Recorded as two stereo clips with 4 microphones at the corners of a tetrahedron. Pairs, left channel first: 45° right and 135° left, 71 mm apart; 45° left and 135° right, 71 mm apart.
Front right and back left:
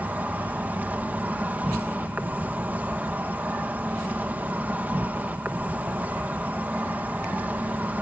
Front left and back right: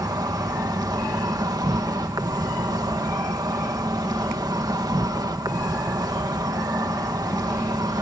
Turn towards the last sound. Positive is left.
turn(degrees=-155)